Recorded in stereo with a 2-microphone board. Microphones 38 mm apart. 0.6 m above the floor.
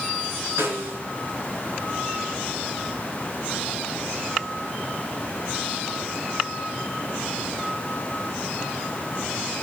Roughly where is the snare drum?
Right.